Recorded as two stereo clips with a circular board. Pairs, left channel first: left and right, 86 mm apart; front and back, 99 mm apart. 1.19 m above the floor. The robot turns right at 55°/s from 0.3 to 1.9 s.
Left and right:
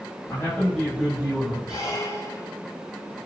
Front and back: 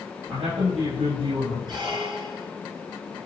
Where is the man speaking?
145° left, 5.5 m; by 1.6 s 145° right, 5.5 m.